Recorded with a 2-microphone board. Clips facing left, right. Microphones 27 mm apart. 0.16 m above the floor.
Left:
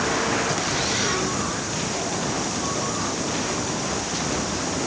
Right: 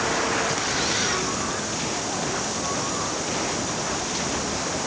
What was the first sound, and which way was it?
Only background noise.